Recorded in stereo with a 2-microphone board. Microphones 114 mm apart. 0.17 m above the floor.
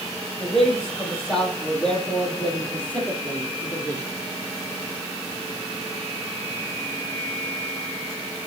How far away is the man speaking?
About 5 m.